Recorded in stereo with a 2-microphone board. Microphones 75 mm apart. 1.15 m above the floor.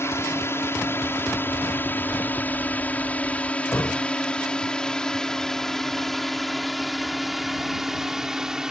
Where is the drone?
35° left (ahead or behind); by 8.7 s 10° right (ahead or behind).